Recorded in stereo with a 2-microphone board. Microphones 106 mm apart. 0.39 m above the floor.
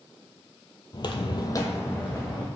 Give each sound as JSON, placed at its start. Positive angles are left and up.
{"t": 0.9, "sound": "footsteps", "side_deg": 40, "distance_m": 0.6}